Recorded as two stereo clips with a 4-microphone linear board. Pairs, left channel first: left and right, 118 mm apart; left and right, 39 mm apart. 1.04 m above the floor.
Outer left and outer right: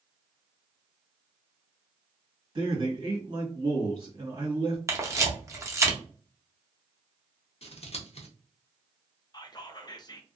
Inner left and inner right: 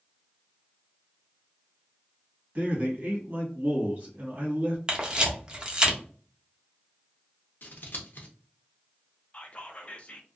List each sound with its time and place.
2.5 s a man speaking: 45° right (ahead or behind), 1.6 m
4.9 s a camera shutter: 25° right (ahead or behind), 0.7 m
7.6 s scissors: 55° left (ahead or behind), 0.7 m
9.3 s whispering: 35° left (ahead or behind), 0.5 m